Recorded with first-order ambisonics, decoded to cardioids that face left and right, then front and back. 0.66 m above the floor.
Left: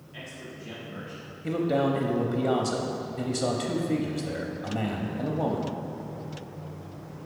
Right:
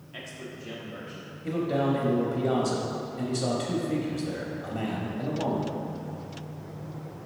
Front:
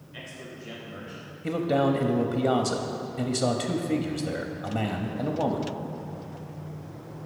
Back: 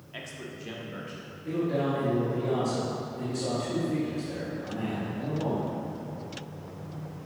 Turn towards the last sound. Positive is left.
turn(degrees=20)